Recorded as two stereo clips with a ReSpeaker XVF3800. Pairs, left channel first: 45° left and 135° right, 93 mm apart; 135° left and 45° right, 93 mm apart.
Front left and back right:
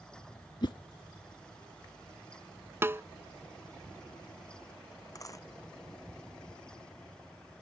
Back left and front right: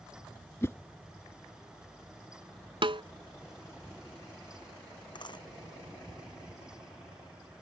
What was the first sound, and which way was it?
A whoosh, 75° left.